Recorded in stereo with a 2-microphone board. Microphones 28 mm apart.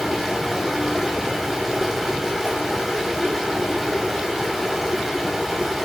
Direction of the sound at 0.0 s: 5° right (ahead or behind).